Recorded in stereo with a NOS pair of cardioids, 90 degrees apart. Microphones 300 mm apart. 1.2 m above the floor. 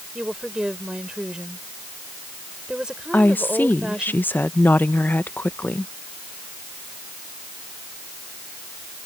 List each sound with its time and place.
0.1 s a woman speaking: straight ahead
3.1 s a woman speaking: 5° left